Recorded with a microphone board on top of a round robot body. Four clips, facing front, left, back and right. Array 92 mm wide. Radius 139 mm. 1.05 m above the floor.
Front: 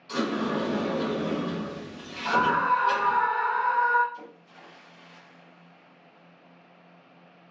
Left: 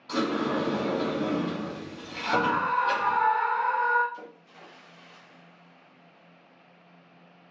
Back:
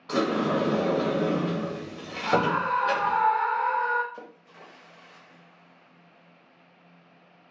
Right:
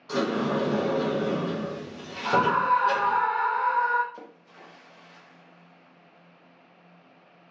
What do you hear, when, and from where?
0.1 s a sliding door: 165° right, 0.6 m
2.2 s a scream: 75° right, 0.9 m
4.1 s a splash: 140° right, 0.7 m